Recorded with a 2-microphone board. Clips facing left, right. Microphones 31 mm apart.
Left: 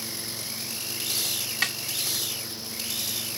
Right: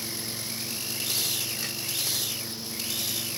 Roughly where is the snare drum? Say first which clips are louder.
Left 8 dB; left.